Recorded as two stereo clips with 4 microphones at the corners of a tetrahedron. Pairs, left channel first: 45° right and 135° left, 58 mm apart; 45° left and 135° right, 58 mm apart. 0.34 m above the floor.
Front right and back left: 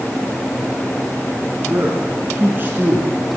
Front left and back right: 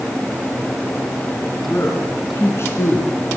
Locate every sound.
1.7 s a man speaking: 85° left, 5.5 m; by 3.1 s 80° left, 4.5 m